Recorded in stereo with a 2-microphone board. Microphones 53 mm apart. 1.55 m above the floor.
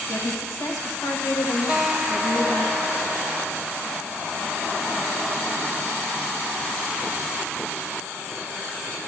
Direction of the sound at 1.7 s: 15° right (ahead or behind).